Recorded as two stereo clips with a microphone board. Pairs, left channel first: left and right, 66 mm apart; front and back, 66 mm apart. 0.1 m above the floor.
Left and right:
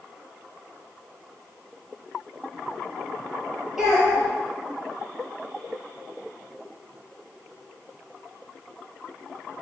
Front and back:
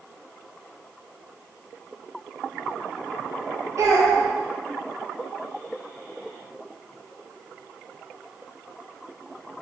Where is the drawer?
I don't hear a drawer.